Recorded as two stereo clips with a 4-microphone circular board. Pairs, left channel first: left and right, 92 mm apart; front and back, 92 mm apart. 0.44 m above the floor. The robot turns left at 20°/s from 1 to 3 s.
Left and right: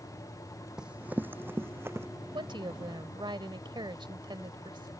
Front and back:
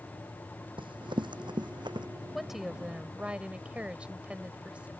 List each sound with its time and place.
0.8 s running footsteps: 170° right; by 2.1 s 150° right
2.3 s a woman speaking: 90° right; by 4.9 s 105° right